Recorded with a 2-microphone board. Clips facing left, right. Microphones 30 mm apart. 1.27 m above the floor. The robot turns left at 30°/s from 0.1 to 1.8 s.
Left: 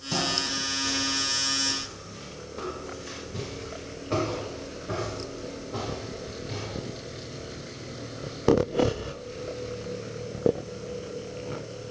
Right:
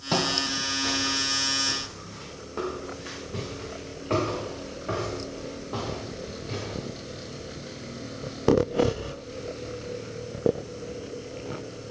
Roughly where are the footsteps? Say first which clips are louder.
Right 2 dB; right.